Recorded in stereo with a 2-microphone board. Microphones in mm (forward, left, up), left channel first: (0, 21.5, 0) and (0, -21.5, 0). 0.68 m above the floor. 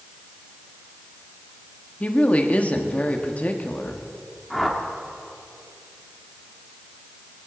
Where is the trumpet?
I don't hear a trumpet.